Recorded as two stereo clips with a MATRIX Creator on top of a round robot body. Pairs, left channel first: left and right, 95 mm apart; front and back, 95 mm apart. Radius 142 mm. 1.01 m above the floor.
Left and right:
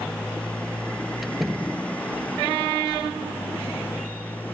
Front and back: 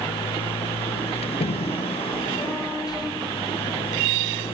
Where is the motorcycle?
10° left; by 4.5 s 15° left.